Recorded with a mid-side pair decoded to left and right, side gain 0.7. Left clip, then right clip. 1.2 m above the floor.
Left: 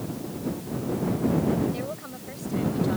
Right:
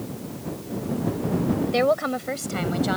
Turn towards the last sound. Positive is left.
turn(degrees=-45)